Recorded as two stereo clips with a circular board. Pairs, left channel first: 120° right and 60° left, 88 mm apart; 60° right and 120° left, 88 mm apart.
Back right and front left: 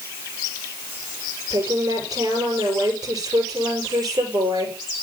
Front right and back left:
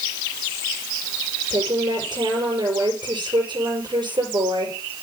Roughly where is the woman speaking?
Left.